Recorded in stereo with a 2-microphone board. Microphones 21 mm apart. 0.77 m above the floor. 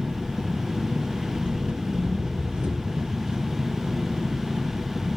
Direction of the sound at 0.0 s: 75° right (ahead or behind).